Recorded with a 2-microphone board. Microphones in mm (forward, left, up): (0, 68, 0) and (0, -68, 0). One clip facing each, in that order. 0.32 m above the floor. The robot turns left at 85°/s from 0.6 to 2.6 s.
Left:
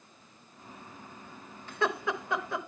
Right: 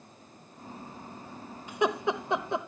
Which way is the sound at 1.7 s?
15° right (ahead or behind).